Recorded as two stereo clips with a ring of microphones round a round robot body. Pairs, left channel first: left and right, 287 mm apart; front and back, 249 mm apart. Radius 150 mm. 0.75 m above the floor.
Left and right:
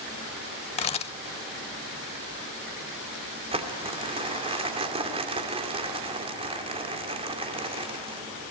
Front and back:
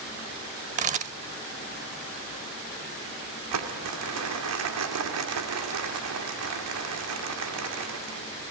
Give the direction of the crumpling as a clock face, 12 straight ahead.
5 o'clock.